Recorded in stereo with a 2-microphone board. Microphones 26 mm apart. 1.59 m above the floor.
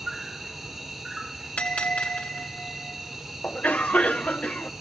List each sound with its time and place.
0.0 s an insect: 15° right (ahead or behind), 3 m
1.6 s a bell: 60° left (ahead or behind), 2 m
3.4 s a cough: 70° left (ahead or behind), 0.8 m